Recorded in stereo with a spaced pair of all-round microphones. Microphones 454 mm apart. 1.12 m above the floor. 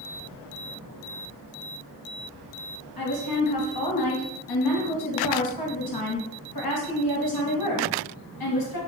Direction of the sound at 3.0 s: 55° left (ahead or behind).